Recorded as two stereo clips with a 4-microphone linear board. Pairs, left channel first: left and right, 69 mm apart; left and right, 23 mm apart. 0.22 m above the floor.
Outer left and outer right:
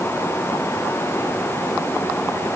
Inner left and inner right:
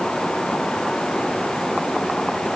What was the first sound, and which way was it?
Only background noise.